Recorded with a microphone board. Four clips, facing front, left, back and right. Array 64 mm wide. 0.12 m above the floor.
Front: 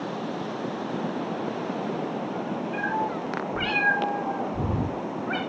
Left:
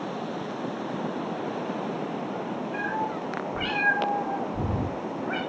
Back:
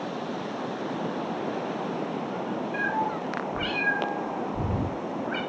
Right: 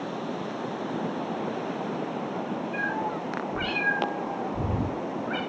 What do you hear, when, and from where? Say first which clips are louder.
2.7 s a cat meowing: even, even; 20° left, 8 m